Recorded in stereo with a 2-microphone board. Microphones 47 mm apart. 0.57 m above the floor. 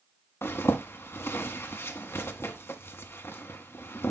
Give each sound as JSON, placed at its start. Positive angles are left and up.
{"t": 0.4, "sound": "a zipper", "side_deg": 60, "distance_m": 1.1}